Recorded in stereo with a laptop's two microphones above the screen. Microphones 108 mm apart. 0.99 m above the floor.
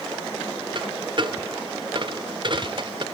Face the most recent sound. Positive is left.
turn(degrees=-45)  # may be behind; listen again after turning